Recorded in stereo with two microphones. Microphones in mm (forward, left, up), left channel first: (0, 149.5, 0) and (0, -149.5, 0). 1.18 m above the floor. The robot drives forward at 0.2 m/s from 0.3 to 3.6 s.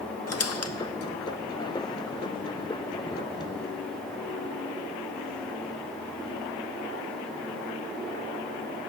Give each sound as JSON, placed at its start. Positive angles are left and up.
{"t": 0.3, "sound": "a squeak", "side_deg": 55, "distance_m": 0.5}